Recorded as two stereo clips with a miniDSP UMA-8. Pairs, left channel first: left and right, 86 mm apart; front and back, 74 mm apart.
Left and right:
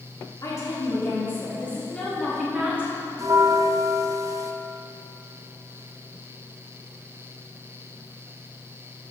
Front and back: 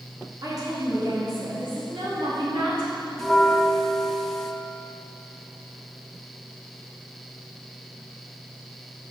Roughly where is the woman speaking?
Behind left.